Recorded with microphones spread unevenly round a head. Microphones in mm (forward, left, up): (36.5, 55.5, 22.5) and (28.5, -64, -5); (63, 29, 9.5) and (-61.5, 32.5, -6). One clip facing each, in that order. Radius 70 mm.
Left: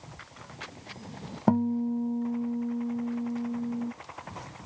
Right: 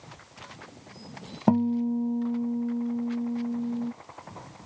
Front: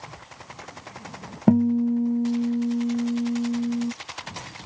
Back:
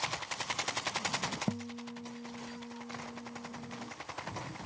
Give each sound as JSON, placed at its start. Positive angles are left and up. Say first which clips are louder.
{"t": 1.5, "sound": "a guitar", "louder": "right 2 dB, front 20 dB", "azimuth_deg": -10}